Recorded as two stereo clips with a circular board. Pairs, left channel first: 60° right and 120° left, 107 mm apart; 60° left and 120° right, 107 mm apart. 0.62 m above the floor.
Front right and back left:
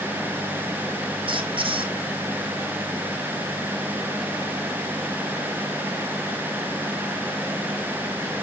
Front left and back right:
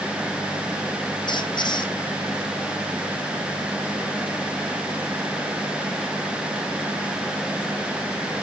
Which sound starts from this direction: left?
A squeak, at 1.3 s.